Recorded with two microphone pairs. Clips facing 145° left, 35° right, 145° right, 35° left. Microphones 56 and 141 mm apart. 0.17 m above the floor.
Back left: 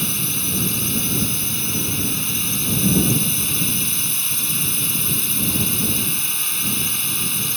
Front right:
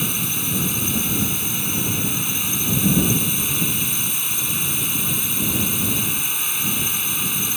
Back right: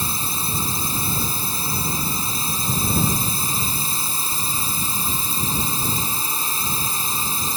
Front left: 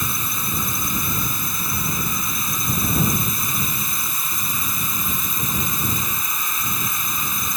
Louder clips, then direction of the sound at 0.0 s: Even, even; 110° right.